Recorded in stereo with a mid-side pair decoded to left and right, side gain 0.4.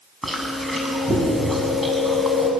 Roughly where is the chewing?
Ahead.